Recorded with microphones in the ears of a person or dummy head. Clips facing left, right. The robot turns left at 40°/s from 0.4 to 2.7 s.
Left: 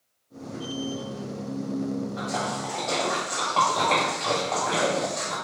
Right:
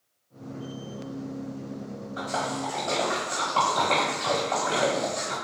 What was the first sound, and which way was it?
A splash, 45° right (ahead or behind).